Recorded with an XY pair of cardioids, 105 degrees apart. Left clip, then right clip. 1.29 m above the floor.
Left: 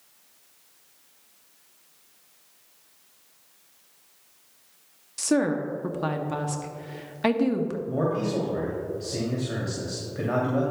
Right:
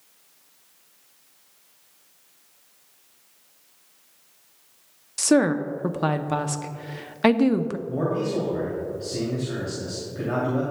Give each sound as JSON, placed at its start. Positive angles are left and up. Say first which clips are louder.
{"t": 5.2, "sound": "a woman speaking", "louder": "right 4 dB", "azimuth_deg": -30, "distance_m": 0.6}
{"t": 7.9, "sound": "a man speaking", "louder": "right 1 dB", "azimuth_deg": 25, "distance_m": 2.5}